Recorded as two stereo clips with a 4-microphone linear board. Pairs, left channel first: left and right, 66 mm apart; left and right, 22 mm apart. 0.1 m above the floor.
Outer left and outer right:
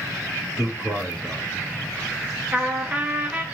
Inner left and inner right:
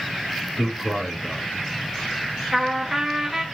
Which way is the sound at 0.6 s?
15° right (ahead or behind).